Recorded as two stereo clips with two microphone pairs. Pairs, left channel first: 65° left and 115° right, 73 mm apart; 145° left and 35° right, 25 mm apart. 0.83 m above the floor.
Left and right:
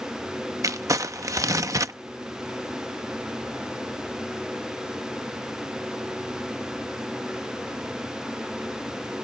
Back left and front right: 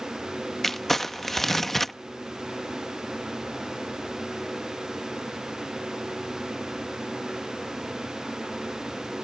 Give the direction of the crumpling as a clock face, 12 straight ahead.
5 o'clock.